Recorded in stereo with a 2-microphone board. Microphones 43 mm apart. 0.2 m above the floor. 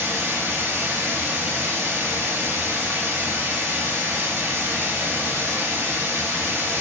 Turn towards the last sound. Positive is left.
turn(degrees=-70)  # may be behind; listen again after turning